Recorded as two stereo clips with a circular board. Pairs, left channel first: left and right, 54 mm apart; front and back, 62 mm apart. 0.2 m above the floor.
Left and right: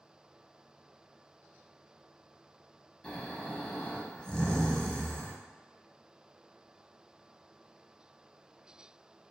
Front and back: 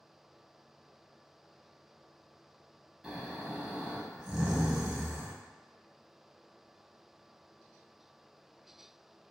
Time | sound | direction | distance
3.0 | snoring | 120° left | 0.5 m